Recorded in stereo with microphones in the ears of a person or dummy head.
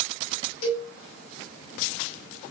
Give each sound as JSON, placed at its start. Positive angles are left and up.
{"t": 0.6, "sound": "a cowbell", "side_deg": 70, "distance_m": 1.3}